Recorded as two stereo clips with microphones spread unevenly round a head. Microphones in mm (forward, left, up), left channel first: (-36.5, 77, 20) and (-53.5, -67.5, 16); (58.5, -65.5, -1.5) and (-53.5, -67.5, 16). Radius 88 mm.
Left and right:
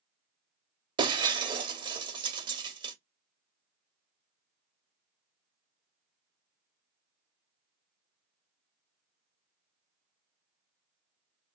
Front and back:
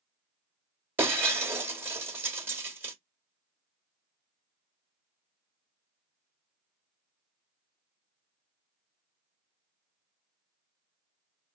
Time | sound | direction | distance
1.0 | breaking glass | 135° right | 0.7 m